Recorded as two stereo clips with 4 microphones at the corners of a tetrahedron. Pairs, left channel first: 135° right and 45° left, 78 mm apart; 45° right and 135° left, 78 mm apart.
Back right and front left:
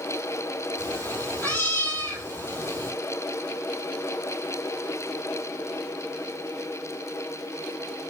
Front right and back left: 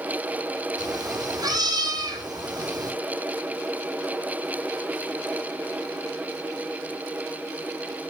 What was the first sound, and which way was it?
A cat meowing, 165° left.